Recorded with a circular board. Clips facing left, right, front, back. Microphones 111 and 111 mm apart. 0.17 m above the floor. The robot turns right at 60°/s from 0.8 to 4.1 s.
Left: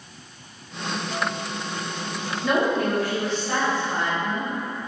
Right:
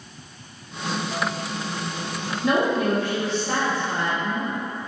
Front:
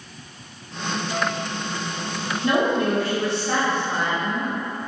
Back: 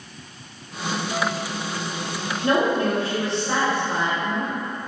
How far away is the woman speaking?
About 1.6 m.